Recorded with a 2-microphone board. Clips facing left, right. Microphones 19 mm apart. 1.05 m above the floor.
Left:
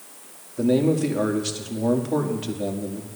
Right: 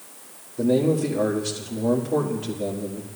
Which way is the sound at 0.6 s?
25° left (ahead or behind).